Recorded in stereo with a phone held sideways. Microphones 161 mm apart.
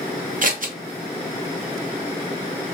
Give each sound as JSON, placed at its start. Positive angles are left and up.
{"t": 0.4, "sound": "scissors", "side_deg": -60, "distance_m": 0.6}